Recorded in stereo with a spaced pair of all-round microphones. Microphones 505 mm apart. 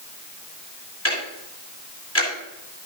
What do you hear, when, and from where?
1.1 s ticking: 25° left (ahead or behind), 7.5 m